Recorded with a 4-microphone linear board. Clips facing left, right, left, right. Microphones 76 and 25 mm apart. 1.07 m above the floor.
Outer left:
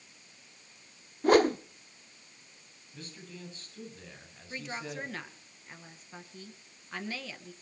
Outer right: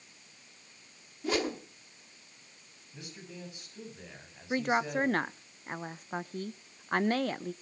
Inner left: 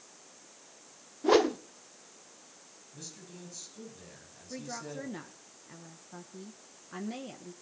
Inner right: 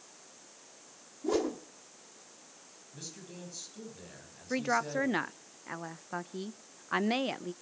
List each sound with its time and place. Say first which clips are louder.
1.2 s a whoosh: outer left 9 dB, inner left 7 dB; 50° left (ahead or behind), 1.0 m
2.9 s a man speaking: outer right 1 dB, inner right 2 dB; 15° right (ahead or behind), 9 m
4.5 s a woman speaking: outer right 10 dB, inner right 10 dB; 55° right (ahead or behind), 0.5 m